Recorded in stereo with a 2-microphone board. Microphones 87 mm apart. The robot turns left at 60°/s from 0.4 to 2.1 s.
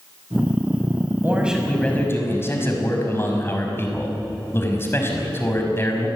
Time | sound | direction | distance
1.2 | a man speaking | 155° right | 5.5 m